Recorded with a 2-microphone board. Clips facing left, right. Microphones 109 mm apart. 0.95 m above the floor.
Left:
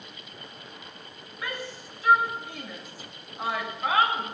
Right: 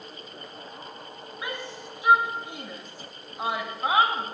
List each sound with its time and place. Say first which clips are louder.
1.4 s a shout: even; 20° right (ahead or behind), 1.8 m